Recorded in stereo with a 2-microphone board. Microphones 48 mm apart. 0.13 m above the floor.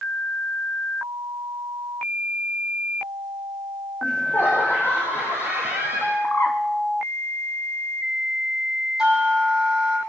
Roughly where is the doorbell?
Centre.